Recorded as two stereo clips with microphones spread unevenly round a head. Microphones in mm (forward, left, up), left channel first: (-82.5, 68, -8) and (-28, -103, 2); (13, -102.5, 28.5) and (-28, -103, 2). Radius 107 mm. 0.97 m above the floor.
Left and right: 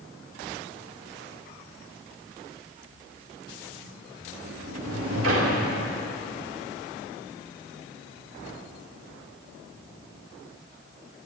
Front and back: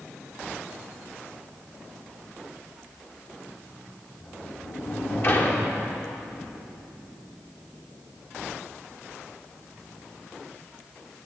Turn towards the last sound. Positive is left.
turn(degrees=-40)